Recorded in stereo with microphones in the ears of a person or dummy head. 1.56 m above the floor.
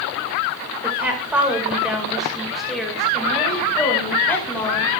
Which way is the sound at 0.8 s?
10° right (ahead or behind).